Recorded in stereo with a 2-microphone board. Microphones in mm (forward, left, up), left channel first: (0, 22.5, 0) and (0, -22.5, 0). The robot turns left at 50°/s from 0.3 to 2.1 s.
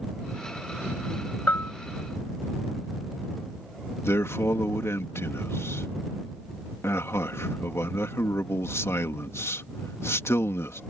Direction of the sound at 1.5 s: 40° left (ahead or behind).